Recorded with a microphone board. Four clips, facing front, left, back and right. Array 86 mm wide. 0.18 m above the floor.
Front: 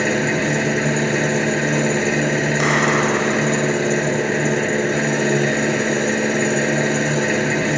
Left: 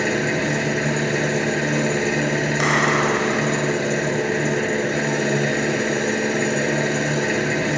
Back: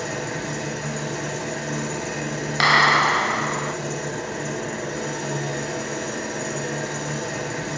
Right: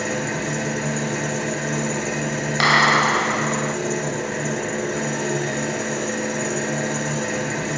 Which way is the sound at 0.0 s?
25° left.